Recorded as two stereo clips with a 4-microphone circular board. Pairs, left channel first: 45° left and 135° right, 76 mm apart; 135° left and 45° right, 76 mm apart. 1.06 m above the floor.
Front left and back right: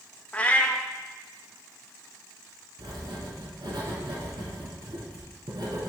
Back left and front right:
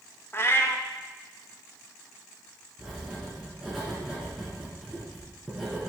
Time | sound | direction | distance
0.3 | a cat meowing | 105° left | 0.6 m
2.8 | writing | 125° right | 3 m